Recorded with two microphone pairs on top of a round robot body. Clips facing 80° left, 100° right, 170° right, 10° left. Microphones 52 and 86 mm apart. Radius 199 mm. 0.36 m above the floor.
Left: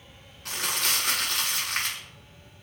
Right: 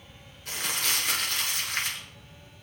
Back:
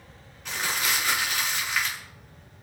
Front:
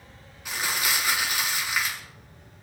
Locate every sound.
0.5 s crumpling: 90° left, 6.5 m